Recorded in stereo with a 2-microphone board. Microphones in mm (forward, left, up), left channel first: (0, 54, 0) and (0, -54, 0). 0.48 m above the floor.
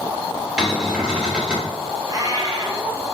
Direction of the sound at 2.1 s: 35° right (ahead or behind).